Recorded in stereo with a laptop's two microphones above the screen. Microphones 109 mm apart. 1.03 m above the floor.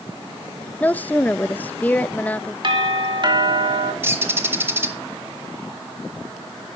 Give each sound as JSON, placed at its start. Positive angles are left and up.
{"t": 0.8, "sound": "a woman speaking", "side_deg": 15, "distance_m": 0.7}
{"t": 2.6, "sound": "a doorbell", "side_deg": -45, "distance_m": 2.0}
{"t": 4.0, "sound": "a bird", "side_deg": -20, "distance_m": 0.8}